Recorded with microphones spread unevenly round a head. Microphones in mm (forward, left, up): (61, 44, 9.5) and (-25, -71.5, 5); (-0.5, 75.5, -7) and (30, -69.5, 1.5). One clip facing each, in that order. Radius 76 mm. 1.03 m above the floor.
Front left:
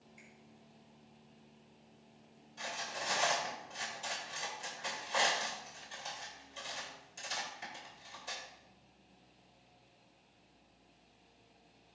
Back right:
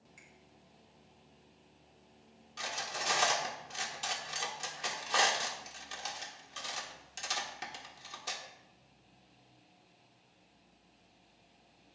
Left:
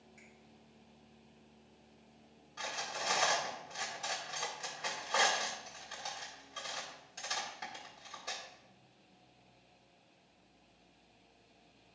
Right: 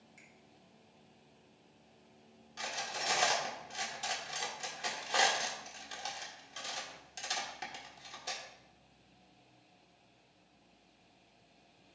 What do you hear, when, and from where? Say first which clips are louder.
0.2 s a finger snap: front left 3 dB, left 3 dB; 135° right, 4 m
2.6 s cutlery clinking: back right 2 dB, even; 140° right, 1.8 m